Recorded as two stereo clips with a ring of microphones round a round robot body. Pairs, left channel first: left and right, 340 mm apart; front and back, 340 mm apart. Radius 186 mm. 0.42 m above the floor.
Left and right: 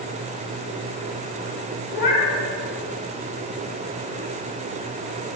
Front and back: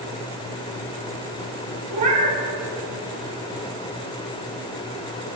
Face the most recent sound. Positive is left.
turn(degrees=-170)